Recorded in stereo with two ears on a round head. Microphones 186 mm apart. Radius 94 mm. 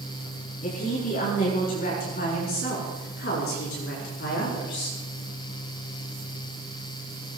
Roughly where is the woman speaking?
Left.